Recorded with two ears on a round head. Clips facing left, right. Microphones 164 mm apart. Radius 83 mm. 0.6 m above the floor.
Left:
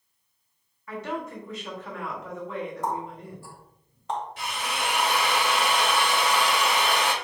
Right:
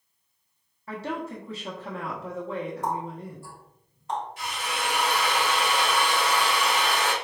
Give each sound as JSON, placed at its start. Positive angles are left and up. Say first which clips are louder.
{"t": 0.9, "sound": "a woman speaking", "louder": "even", "side_deg": -30, "distance_m": 1.0}
{"t": 2.8, "sound": "a running tap", "louder": "even", "side_deg": 65, "distance_m": 1.8}
{"t": 4.4, "sound": "a drill", "louder": "left 1 dB", "side_deg": 55, "distance_m": 1.6}